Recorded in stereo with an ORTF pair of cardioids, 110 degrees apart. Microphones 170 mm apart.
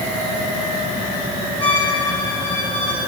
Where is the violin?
30° left, 3 m.